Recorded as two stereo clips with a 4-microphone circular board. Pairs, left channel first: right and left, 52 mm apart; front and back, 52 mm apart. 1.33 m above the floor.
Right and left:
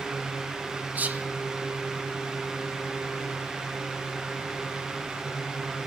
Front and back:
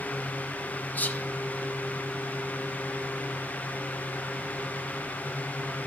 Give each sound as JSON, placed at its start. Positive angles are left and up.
{"t": 0.9, "sound": "whispering", "azimuth_deg": 45, "distance_m": 0.6}